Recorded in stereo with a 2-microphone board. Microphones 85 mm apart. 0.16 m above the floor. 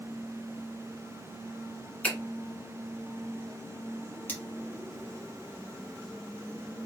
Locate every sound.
2.0 s a finger snap: 15° left (ahead or behind), 1.5 m
4.3 s cutlery clinking: 20° left (ahead or behind), 0.9 m